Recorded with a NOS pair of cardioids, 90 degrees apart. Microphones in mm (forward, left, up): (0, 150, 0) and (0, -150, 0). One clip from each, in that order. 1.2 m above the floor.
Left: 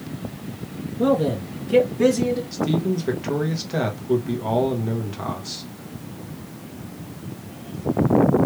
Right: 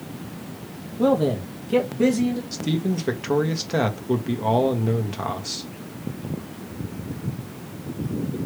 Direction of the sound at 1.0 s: 10° right.